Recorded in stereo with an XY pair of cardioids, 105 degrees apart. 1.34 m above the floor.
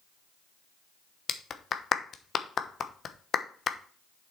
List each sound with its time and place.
1.3 s a clap: 50° left, 1.0 m